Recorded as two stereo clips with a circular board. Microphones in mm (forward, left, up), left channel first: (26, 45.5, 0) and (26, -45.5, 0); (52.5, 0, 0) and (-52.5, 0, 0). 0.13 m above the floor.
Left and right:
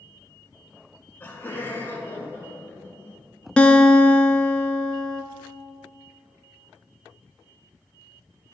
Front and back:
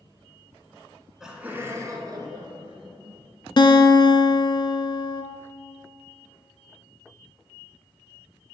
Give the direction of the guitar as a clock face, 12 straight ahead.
12 o'clock.